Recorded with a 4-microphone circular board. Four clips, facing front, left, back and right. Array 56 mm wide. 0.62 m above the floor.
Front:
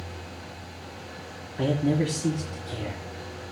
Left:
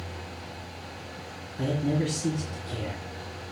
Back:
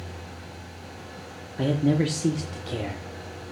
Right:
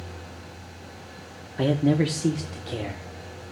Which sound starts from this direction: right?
A man speaking, at 1.6 s.